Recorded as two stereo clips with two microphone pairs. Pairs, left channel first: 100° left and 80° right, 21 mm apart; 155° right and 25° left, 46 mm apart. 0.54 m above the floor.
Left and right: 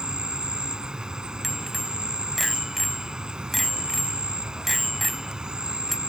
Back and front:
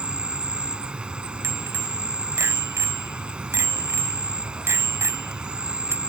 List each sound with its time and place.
0.0 s an insect: 40° right
1.4 s a bicycle bell: 10° left